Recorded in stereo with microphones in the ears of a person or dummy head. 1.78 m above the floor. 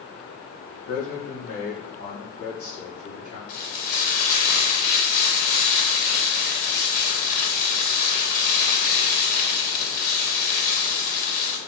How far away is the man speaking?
About 1.3 m.